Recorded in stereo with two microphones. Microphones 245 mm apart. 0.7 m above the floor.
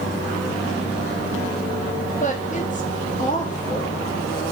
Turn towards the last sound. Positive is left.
turn(degrees=30)  # may be behind; listen again after turning